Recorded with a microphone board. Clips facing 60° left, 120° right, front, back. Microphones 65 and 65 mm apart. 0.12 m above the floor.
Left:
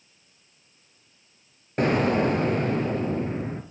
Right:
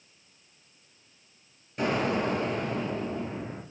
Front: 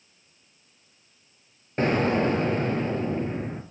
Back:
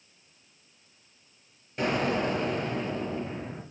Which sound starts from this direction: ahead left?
An explosion, at 1.8 s.